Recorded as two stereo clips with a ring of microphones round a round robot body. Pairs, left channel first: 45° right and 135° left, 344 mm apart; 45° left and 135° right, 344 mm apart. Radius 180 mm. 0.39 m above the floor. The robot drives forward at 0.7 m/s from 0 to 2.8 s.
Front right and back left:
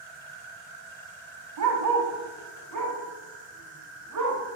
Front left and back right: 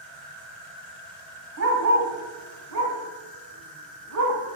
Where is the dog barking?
175° left, 1.1 m.